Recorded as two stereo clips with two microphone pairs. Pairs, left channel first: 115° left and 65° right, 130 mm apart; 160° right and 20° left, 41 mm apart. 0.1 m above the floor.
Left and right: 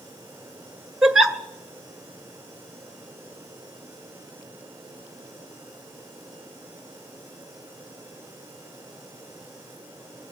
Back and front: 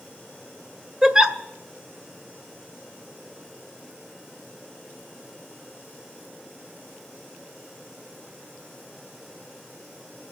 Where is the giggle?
20° left, 1.4 m.